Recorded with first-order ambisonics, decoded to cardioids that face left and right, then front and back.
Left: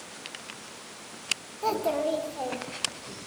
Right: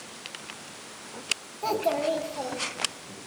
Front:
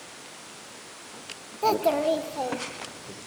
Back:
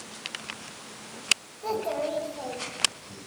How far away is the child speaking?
About 1.1 m.